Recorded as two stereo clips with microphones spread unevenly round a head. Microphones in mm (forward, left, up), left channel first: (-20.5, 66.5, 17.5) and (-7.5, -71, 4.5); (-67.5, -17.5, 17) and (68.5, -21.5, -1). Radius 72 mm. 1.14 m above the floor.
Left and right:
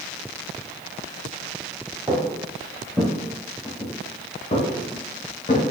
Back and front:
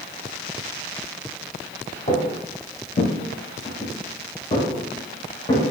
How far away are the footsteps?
About 1.5 m.